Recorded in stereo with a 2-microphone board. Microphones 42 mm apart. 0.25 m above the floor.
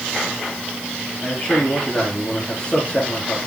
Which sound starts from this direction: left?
A man speaking, at 1.2 s.